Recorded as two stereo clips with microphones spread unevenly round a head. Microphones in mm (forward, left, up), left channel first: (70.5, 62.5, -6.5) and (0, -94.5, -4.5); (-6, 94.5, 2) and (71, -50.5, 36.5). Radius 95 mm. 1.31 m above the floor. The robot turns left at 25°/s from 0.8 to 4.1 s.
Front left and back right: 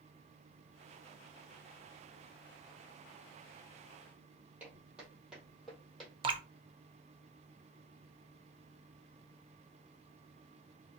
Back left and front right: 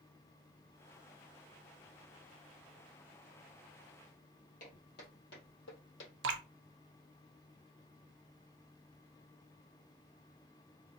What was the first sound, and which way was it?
Footsteps, 165° left.